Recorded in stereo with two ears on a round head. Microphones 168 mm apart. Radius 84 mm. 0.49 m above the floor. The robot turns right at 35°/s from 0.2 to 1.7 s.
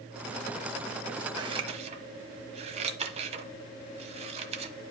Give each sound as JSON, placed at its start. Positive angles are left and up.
{"t": 1.4, "sound": "scissors", "side_deg": -20, "distance_m": 1.2}